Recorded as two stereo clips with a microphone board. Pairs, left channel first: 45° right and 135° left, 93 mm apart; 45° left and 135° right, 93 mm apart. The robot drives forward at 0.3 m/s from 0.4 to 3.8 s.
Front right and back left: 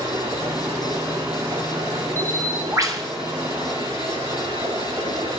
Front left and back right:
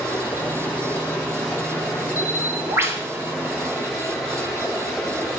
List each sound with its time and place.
0.0 s running water: 120° left, 3 m; by 5.4 s 135° left, 3.5 m
2.2 s a bird: 170° left, 0.9 m